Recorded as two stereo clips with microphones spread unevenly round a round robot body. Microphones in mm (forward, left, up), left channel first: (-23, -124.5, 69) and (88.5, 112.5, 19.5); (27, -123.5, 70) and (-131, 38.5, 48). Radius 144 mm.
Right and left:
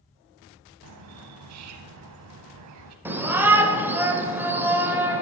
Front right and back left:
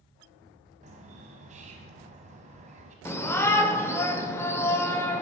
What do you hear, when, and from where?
0.8 s a bird: 75° left, 0.8 m
3.0 s a shout: 30° left, 0.9 m